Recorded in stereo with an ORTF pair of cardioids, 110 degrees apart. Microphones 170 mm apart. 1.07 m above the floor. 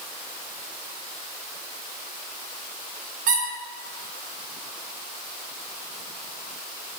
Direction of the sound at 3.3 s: 55° right.